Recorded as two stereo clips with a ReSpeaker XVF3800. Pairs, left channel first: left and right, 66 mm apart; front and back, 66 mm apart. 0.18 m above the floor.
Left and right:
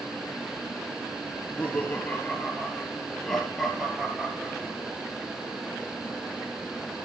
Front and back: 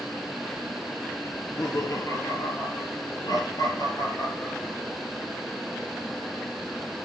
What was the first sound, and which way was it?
Laughter, 30° left.